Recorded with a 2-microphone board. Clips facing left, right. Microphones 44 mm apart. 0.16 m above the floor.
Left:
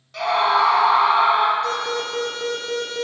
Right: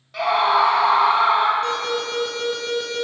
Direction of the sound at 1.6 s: 50° right (ahead or behind).